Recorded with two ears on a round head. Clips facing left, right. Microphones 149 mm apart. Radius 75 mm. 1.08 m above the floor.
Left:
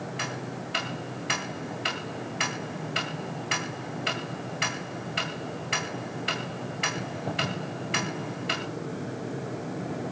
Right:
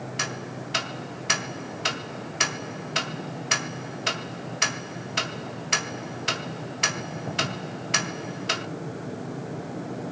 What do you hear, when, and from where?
0.2 s ticking: 55° right (ahead or behind), 1.8 m